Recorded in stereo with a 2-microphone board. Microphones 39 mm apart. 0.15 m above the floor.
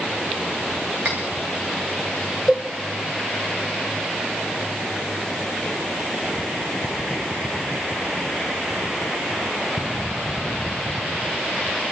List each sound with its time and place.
1.1 s cutlery clinking: 45° right (ahead or behind), 7 m
2.5 s a cowbell: 20° right (ahead or behind), 2.5 m